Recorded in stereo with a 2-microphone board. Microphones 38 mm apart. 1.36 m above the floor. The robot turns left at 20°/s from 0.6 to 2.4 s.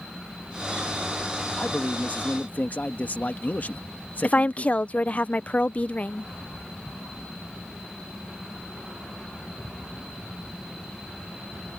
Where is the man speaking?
35° left (ahead or behind); by 5.2 s 50° left (ahead or behind).